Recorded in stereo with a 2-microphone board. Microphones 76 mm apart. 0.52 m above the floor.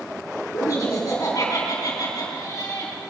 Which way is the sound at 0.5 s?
50° left (ahead or behind).